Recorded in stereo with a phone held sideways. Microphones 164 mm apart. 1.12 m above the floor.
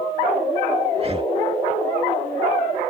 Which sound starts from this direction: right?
Breathing, at 0.9 s.